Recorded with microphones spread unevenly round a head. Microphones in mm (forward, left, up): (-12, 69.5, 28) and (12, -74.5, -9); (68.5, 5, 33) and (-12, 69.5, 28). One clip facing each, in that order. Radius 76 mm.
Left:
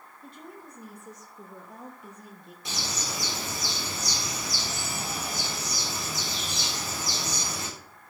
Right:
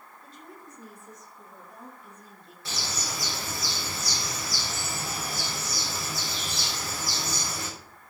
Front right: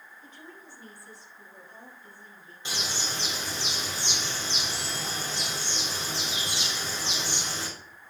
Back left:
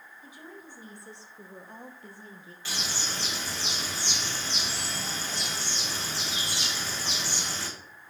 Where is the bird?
30° left, 4 m.